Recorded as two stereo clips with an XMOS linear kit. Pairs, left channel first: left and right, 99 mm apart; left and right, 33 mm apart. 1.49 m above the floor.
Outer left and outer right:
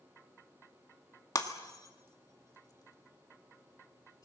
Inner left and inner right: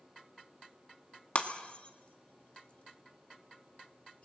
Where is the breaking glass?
40° left (ahead or behind), 1.8 m.